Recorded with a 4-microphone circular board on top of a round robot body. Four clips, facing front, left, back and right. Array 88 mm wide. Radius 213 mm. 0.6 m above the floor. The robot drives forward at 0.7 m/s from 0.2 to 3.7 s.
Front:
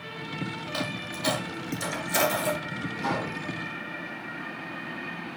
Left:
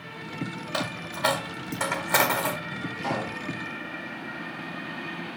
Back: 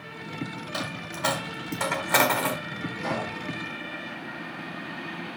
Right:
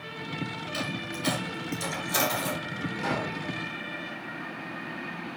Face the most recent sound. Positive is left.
turn(degrees=-100)